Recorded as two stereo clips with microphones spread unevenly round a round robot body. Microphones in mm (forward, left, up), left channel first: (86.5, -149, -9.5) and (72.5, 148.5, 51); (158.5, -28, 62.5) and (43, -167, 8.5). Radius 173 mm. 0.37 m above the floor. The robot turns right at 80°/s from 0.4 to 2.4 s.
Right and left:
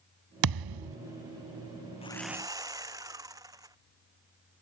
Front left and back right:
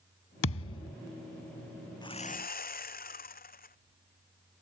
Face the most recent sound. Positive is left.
turn(degrees=15)